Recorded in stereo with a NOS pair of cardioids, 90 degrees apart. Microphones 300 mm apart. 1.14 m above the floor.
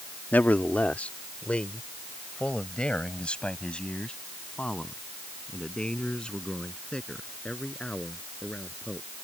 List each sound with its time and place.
0.3 s a man speaking: 5° left